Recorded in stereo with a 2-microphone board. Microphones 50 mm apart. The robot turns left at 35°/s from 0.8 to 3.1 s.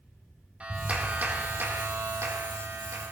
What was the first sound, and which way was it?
A clap, 30° right.